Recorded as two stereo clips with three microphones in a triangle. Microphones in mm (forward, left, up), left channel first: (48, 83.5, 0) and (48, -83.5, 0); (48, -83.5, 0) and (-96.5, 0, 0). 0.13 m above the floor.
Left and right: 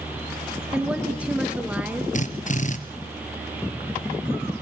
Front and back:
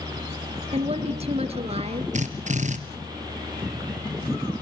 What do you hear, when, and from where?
0.7 s a woman speaking: 170° right, 2.5 m
2.1 s a drill: 120° left, 2 m